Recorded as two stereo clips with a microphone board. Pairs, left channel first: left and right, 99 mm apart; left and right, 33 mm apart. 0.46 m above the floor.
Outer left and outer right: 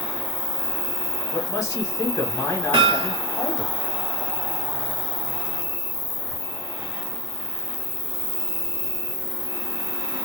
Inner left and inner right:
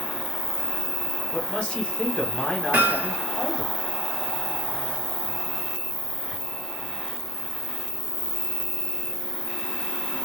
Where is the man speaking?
30° left (ahead or behind), 1.2 m.